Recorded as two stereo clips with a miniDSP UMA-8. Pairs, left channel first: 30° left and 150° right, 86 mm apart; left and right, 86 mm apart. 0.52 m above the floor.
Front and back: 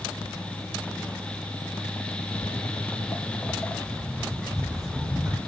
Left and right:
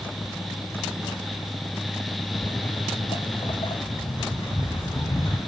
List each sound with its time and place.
2.3 s footsteps: 60° left, 1.1 m; by 5.4 s 125° left, 2.5 m